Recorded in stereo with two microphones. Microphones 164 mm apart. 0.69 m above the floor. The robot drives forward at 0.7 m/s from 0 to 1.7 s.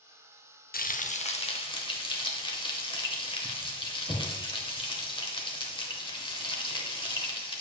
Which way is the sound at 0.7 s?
65° left (ahead or behind).